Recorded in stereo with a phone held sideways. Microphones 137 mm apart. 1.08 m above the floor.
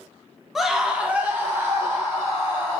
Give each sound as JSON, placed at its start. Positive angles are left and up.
{"t": 0.6, "sound": "a scream", "side_deg": 0, "distance_m": 0.6}